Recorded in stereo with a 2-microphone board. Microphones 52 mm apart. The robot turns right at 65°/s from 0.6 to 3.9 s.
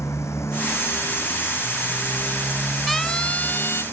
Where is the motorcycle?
70° left (ahead or behind); by 3.9 s 85° right.